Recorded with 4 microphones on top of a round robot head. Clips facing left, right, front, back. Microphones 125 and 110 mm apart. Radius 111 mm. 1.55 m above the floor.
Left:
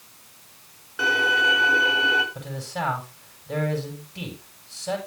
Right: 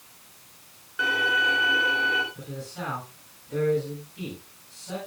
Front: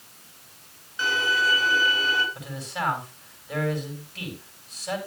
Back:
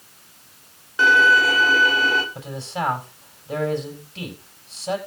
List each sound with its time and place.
1.0 s a violin: 155° left, 2 m
2.4 s a man speaking: 125° left, 7.5 m